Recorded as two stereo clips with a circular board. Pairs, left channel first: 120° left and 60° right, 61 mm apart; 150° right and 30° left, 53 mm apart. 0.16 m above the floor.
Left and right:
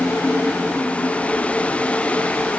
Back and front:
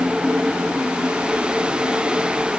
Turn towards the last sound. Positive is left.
No sound to turn to.